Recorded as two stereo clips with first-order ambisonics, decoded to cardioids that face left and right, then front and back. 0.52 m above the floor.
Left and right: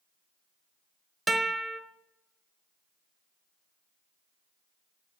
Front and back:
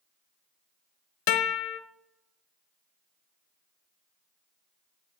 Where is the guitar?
10° right, 0.8 m.